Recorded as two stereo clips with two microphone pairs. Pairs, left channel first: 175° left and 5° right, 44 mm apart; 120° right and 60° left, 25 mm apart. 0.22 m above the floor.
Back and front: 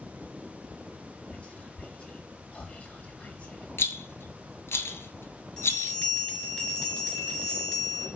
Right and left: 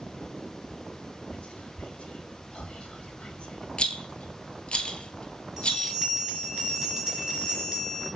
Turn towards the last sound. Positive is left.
turn(degrees=120)